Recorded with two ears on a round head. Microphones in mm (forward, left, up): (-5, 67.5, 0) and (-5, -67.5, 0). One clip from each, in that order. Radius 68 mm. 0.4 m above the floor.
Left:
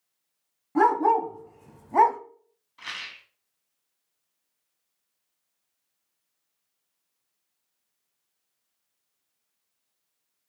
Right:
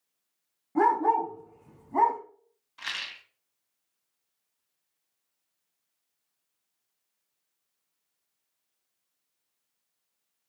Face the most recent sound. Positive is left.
turn(degrees=-30)  # may be behind; listen again after turning